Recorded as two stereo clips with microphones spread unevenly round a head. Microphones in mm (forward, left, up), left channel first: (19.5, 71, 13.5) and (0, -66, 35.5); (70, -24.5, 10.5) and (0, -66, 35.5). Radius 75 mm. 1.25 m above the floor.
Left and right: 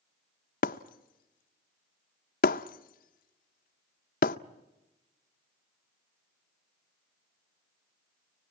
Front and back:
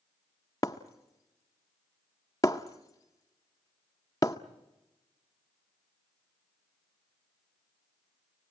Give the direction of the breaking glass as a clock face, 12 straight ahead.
8 o'clock.